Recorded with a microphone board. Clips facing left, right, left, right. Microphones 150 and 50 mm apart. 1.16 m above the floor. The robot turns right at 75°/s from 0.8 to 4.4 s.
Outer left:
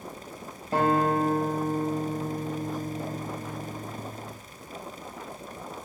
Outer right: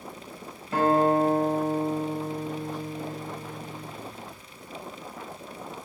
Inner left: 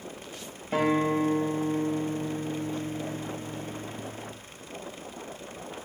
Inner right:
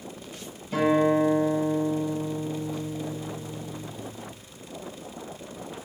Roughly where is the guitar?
Ahead left.